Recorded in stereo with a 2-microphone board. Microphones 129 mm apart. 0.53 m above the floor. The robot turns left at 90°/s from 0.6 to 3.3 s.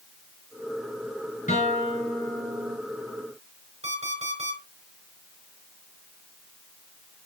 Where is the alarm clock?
55° right (ahead or behind), 4.5 m.